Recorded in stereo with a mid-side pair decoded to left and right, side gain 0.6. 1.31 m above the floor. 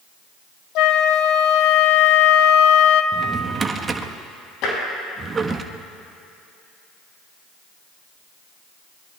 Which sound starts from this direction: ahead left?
Tapping, at 4.6 s.